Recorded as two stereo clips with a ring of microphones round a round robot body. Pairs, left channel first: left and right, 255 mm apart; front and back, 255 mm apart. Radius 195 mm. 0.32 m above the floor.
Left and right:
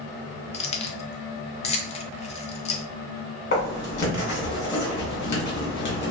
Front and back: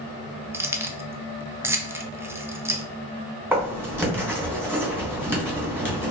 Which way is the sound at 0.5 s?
110° left.